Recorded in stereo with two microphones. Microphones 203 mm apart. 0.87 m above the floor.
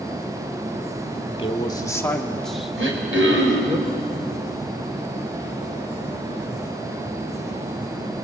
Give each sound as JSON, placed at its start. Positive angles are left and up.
{"t": 1.4, "sound": "a man speaking", "side_deg": 30, "distance_m": 1.8}
{"t": 2.8, "sound": "throat clearing", "side_deg": -80, "distance_m": 4.0}